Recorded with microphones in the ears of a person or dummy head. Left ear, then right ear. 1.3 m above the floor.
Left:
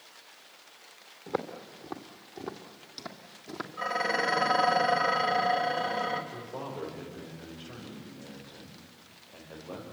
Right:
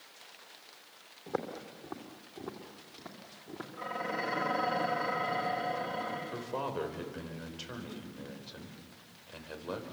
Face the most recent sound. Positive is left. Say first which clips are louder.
# right 3 dB
turn(degrees=-75)  # may be behind; listen again after turning